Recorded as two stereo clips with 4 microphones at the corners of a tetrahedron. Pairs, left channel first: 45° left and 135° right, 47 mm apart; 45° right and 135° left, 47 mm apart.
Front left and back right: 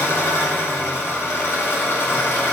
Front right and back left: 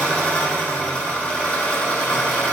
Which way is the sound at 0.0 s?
15° left.